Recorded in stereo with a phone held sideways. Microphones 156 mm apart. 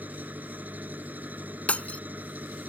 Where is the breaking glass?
10° left (ahead or behind).